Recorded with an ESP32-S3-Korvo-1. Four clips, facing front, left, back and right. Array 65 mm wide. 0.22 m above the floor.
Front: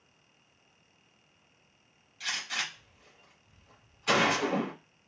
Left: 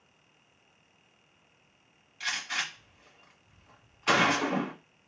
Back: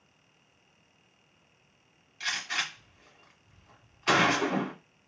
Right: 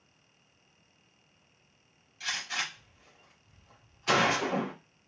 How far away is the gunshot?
About 2.0 m.